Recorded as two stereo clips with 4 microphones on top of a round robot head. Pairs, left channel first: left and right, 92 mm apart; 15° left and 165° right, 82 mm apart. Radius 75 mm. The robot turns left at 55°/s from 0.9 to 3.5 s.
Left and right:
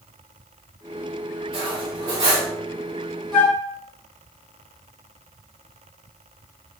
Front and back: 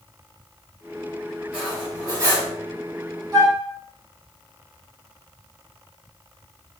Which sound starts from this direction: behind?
A flute, at 3.3 s.